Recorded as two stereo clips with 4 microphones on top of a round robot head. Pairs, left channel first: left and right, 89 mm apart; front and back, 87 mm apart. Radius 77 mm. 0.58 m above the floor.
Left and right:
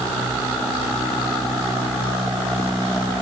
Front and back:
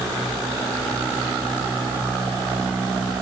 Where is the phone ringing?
No phone ringing in this recording.